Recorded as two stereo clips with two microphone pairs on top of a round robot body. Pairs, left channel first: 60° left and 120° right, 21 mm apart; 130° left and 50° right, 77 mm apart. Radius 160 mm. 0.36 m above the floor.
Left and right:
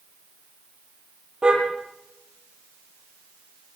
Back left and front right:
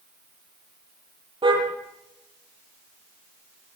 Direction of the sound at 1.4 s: 60° right.